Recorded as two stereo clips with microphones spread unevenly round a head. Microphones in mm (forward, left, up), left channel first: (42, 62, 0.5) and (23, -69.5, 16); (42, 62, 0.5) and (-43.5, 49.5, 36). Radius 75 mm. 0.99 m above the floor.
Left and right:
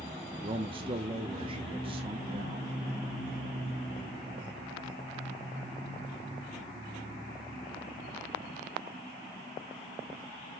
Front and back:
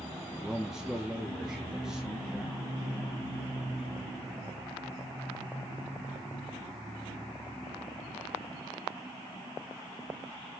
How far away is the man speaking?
About 1.0 m.